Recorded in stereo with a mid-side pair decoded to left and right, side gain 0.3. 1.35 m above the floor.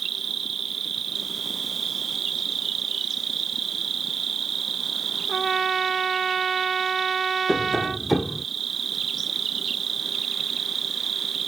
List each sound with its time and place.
0.0 s an insect: 70° right
5.3 s a trumpet: 55° right
7.5 s tapping: 5° right